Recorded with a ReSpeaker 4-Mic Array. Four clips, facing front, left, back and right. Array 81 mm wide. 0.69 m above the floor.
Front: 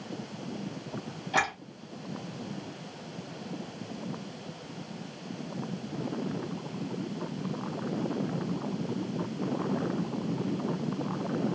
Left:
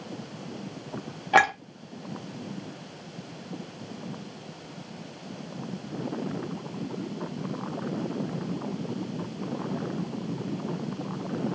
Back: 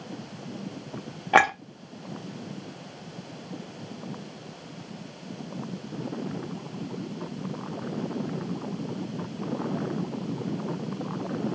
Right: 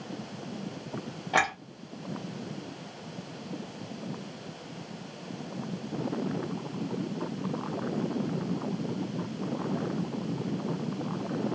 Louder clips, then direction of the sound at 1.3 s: Left 6 dB, back 9 dB; 160° left.